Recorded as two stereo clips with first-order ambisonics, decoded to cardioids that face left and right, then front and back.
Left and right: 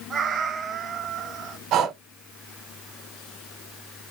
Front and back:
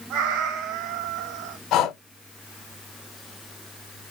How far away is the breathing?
About 0.7 m.